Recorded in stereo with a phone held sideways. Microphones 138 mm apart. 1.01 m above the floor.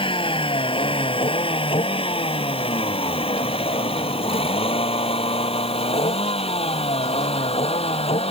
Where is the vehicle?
35° left (ahead or behind); by 8.3 s 45° left (ahead or behind).